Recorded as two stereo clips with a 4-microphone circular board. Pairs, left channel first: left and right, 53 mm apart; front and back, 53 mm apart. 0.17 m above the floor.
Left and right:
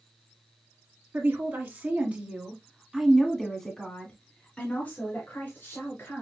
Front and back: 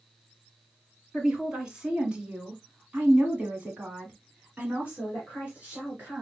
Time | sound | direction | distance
1.1 | a woman speaking | 105° right | 1.8 m